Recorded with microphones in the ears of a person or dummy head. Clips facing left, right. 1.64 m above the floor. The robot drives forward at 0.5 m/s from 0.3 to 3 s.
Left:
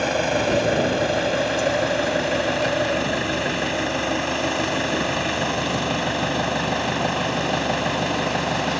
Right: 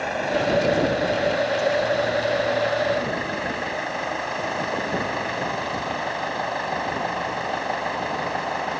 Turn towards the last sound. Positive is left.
turn(degrees=45)  # may be behind; listen again after turning